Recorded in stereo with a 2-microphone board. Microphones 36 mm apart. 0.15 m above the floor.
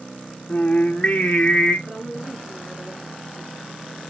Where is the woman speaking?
15° right (ahead or behind), 5.5 m.